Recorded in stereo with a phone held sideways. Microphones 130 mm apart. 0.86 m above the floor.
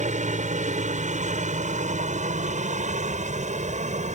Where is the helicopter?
70° right (ahead or behind); by 4.2 s 65° right (ahead or behind).